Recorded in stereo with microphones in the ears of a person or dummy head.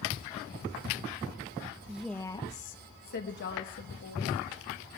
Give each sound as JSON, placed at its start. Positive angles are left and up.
{"t": 1.9, "sound": "a woman speaking", "side_deg": -10, "distance_m": 0.6}